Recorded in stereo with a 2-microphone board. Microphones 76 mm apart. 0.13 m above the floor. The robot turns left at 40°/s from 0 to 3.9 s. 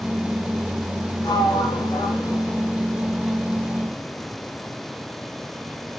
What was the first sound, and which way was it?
A sliding door, 105° left.